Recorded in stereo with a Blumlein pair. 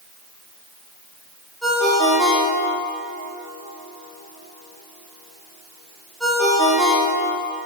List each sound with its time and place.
1.6 s a ringtone: straight ahead, 2.5 m